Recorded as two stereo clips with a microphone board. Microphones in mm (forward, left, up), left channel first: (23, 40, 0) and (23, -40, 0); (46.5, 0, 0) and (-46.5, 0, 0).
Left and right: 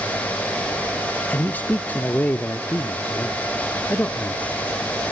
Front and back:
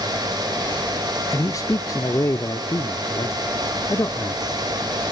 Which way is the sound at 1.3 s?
30° left.